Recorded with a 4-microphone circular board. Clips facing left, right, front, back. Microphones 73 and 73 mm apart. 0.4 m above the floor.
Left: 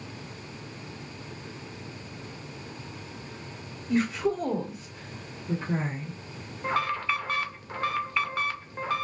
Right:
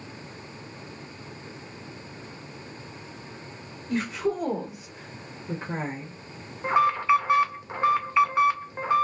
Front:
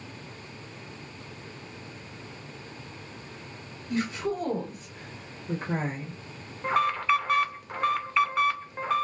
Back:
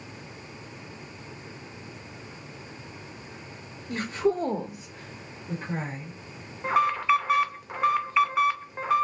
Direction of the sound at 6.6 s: 105° right.